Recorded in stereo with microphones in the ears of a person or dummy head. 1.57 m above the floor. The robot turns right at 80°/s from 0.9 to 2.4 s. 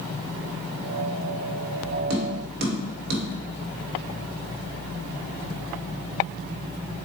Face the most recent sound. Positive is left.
turn(degrees=-60)  # may be behind; listen again after turning